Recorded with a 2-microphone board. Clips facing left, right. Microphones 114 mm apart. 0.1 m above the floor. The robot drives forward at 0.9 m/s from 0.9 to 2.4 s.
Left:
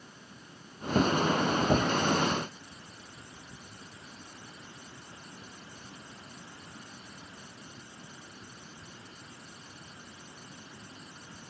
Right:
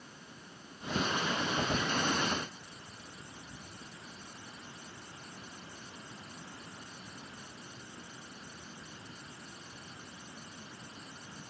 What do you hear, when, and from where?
Only background noise.